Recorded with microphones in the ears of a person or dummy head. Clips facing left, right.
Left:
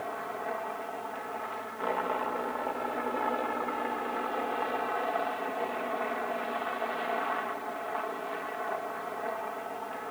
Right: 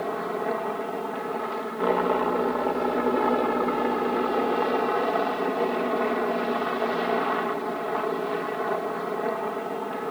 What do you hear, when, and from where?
0.0 s a helicopter: 55° right (ahead or behind)